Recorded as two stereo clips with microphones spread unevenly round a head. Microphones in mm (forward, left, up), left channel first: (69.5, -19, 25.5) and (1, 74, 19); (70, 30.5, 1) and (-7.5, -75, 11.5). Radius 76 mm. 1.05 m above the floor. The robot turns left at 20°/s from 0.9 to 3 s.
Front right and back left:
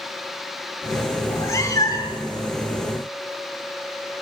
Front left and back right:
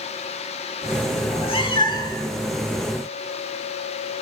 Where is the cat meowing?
15° left, 1.6 m; by 2.3 s 5° right, 1.6 m.